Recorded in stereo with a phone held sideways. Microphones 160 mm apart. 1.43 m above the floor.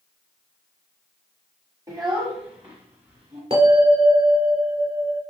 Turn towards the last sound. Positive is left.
turn(degrees=-40)  # may be behind; listen again after turning